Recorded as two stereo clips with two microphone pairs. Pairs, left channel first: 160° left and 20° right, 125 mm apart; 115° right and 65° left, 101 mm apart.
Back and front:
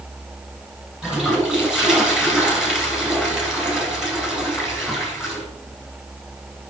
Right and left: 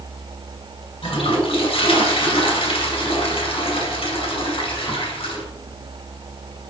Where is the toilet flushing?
105° right, 2.5 m.